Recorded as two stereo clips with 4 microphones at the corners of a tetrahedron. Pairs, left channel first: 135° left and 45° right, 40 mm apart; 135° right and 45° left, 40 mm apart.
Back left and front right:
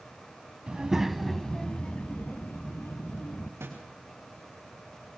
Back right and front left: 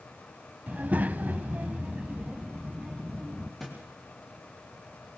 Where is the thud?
50° right, 5.5 m.